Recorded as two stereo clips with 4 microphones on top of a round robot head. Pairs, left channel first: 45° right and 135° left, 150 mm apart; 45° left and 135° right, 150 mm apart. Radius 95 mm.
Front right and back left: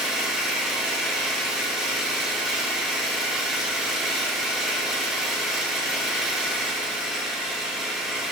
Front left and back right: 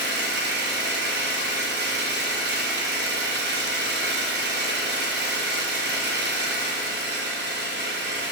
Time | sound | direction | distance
0.0 | an engine running | 140° right | 1.7 m